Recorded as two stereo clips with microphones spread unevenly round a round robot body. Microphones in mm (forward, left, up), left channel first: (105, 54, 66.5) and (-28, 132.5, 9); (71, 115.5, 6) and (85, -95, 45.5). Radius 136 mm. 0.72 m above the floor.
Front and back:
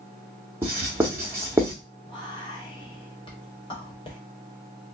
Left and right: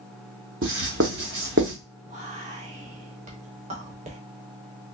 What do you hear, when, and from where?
0.6 s writing: 135° right, 0.7 m
2.1 s whispering: 95° right, 0.8 m